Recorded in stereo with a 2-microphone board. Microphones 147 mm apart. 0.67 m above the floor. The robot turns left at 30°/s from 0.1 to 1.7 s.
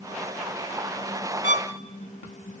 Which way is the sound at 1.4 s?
60° right (ahead or behind).